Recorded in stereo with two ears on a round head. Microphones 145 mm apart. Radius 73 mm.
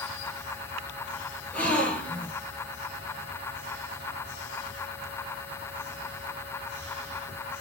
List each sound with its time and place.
1.5 s a gasp: 10° left (ahead or behind), 2.5 m